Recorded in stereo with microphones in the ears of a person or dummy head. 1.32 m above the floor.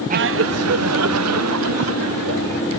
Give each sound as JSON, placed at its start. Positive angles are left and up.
{"t": 0.1, "sound": "laughter", "side_deg": -40}